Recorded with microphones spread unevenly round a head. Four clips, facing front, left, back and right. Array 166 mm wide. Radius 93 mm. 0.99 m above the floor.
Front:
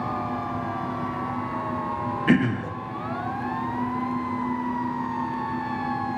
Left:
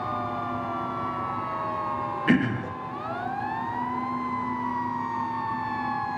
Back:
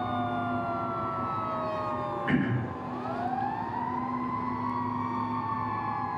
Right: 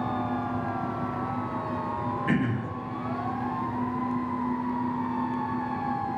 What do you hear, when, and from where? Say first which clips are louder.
2.3 s throat clearing: left 6 dB, front 8 dB; 30° left, 0.5 m